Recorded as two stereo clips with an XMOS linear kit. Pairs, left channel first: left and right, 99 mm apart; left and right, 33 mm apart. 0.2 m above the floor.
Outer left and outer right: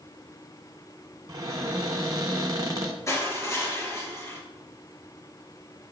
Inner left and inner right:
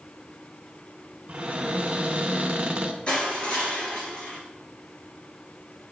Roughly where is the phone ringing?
I don't hear a phone ringing.